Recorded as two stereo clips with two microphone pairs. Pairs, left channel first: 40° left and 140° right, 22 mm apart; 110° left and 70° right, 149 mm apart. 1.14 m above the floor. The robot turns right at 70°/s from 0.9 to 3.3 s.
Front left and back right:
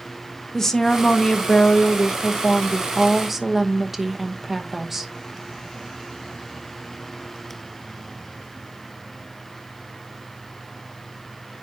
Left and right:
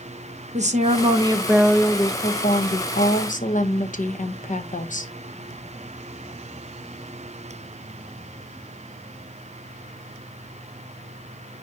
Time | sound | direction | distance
0.5 | a woman speaking | 30° right | 0.9 m